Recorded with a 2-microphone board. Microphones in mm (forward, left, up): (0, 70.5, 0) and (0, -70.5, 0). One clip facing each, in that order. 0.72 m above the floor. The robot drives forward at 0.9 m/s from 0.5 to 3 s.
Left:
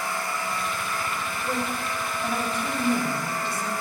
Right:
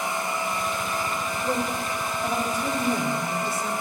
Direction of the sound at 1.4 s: 25° right (ahead or behind).